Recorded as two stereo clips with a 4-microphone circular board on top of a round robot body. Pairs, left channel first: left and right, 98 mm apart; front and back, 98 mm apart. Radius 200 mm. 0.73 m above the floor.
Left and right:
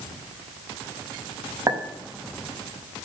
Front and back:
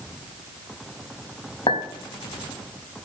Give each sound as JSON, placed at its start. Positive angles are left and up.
{"t": 1.7, "sound": "a clink", "azimuth_deg": -30, "distance_m": 5.5}